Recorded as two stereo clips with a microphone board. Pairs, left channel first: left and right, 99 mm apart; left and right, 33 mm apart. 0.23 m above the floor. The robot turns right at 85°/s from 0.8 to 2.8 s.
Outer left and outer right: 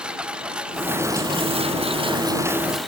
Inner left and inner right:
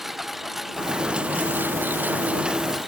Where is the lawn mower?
170° right; by 2.9 s straight ahead.